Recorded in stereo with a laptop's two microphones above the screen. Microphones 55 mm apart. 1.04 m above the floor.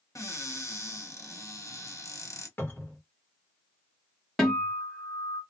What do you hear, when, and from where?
0.1 s a cupboard door: 65° left (ahead or behind), 1.1 m
2.6 s a cupboard door: 40° left (ahead or behind), 0.9 m
4.4 s a guitar: 5° left (ahead or behind), 1.2 m